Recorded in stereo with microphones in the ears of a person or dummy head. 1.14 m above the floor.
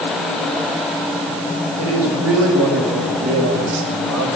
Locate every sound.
1.8 s a man speaking: 85° right, 5 m